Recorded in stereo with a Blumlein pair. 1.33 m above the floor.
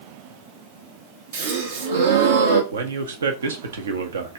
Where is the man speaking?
65° right, 0.9 m.